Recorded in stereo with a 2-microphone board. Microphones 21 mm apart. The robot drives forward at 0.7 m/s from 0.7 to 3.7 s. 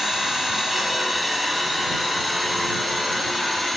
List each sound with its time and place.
0.0 s an engine running: 10° right (ahead or behind), 7.5 m